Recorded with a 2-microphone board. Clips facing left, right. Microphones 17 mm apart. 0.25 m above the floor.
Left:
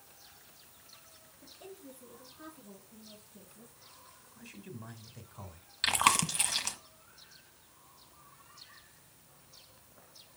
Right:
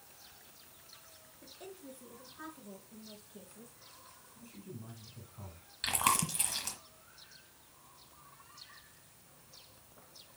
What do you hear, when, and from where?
1.4 s a woman speaking: 30° right (ahead or behind), 4 m; by 3.7 s 60° right (ahead or behind), 3.5 m
4.3 s a man speaking: 45° left (ahead or behind), 1.6 m
5.8 s chewing: 25° left (ahead or behind), 1.2 m